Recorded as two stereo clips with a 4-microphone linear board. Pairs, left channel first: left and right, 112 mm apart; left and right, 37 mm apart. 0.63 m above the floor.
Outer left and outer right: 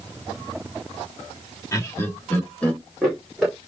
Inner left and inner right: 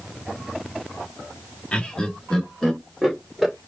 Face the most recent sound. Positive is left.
turn(degrees=-5)  # may be behind; listen again after turning